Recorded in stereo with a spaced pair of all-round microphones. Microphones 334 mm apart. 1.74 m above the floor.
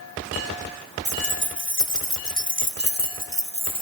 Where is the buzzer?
I don't hear a buzzer.